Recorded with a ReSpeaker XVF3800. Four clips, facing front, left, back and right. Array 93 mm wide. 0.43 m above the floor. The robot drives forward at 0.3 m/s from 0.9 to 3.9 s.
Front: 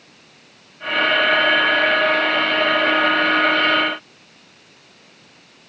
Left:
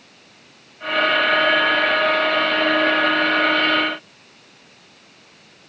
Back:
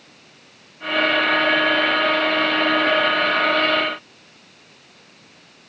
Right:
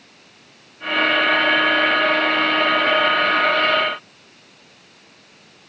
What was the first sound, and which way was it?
Only background noise.